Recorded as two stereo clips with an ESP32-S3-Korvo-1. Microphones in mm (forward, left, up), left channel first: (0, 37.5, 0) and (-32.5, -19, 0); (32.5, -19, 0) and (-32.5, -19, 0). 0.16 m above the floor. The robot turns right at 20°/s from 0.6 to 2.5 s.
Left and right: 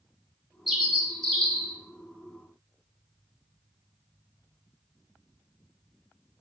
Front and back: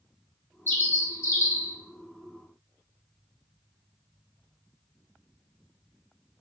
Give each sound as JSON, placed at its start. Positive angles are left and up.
{"t": 0.7, "sound": "a bird", "azimuth_deg": -35, "distance_m": 0.7}